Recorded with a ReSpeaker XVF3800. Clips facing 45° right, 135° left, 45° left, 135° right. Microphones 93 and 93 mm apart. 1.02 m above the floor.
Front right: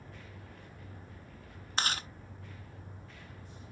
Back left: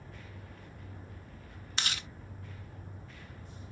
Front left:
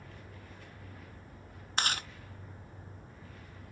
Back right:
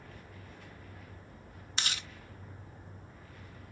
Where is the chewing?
5° left.